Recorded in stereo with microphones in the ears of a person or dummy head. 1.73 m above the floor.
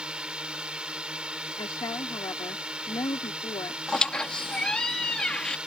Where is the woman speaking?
20° left (ahead or behind).